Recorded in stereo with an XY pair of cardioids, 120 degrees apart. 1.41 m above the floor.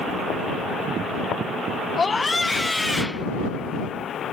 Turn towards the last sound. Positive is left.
turn(degrees=0)